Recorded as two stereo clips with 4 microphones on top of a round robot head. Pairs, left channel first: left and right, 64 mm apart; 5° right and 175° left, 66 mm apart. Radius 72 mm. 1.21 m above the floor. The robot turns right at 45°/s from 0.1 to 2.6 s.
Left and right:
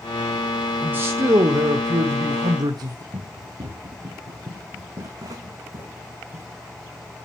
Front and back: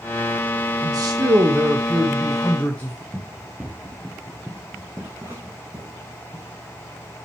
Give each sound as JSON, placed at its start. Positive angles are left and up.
{"t": 0.8, "sound": "a man speaking", "azimuth_deg": -155, "distance_m": 1.4}
{"t": 3.1, "sound": "running footsteps", "azimuth_deg": -95, "distance_m": 2.5}